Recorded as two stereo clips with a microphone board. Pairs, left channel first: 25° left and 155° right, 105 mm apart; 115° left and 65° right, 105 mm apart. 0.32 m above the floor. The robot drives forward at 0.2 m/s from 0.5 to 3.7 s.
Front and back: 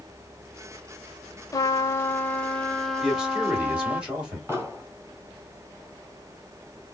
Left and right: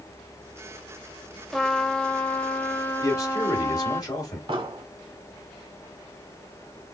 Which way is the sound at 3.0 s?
125° left.